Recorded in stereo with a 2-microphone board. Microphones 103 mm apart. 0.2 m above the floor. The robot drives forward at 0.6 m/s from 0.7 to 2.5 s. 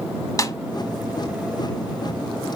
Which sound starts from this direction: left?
A snare drum, at 0.4 s.